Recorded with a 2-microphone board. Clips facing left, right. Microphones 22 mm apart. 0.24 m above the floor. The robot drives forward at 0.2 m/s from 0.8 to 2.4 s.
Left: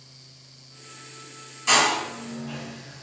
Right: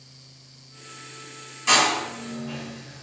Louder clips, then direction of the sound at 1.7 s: Right 1 dB; 5° right (ahead or behind).